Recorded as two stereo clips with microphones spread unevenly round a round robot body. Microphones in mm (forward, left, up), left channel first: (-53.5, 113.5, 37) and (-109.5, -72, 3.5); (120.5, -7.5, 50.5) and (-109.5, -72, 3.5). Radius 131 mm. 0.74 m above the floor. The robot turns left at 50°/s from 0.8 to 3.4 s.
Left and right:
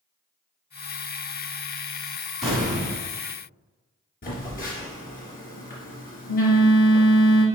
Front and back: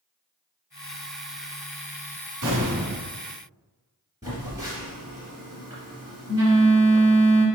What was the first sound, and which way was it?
An explosion, 160° left.